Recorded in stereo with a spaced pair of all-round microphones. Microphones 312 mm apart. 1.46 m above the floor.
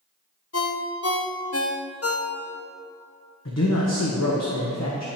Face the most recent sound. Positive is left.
turn(degrees=55)  # may be behind; listen again after turning